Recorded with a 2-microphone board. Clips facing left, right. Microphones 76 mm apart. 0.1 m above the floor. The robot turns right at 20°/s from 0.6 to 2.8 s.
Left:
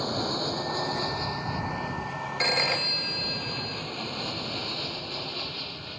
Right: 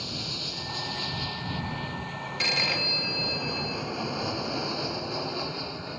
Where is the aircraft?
40° left (ahead or behind); by 6.0 s 20° right (ahead or behind).